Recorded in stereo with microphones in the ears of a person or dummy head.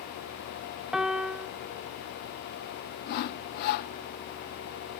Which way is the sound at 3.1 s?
55° left (ahead or behind).